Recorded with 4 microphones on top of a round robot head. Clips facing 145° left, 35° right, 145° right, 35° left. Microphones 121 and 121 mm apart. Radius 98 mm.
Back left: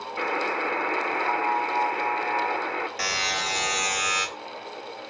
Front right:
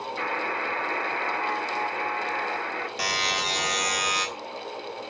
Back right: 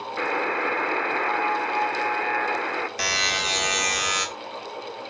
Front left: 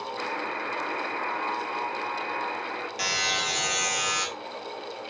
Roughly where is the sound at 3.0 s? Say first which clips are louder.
Front right 1 dB, back right 2 dB; right.